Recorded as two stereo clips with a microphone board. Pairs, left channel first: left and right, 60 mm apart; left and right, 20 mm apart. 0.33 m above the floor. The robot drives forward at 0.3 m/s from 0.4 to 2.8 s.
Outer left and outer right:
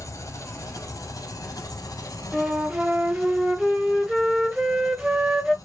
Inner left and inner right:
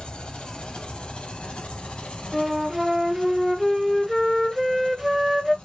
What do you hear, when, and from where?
0.0 s an engine running: 60° left (ahead or behind), 1.0 m; by 5.6 s 70° left (ahead or behind), 0.9 m
2.3 s a flute: 10° right (ahead or behind), 0.6 m